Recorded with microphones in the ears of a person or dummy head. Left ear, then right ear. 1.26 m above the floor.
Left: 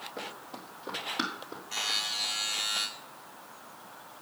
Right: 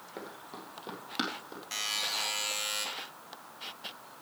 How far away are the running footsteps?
About 1.7 m.